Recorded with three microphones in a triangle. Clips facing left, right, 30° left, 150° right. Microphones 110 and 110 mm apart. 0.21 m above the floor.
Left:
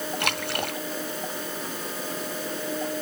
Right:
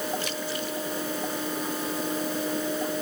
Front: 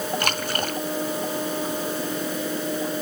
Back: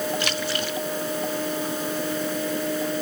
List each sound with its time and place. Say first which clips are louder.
0.2 s a splash: left 2 dB, front 1 dB; 70° left